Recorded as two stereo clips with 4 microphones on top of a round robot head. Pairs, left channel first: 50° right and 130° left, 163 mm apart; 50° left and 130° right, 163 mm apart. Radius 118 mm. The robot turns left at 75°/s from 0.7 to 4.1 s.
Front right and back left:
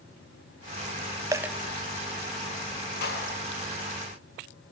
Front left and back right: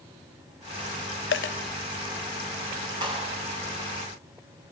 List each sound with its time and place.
1.3 s a dropped coin: 65° left, 0.7 m; by 1.6 s 45° left, 0.7 m
3.0 s a clap: 65° right, 7 m; by 3.4 s 95° right, 7 m